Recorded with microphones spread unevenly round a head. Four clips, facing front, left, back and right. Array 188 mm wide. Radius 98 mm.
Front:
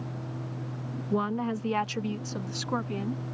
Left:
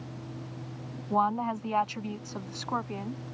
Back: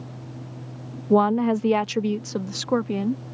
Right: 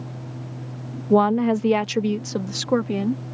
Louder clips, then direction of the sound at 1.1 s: Right 10 dB, back 10 dB; 125° right.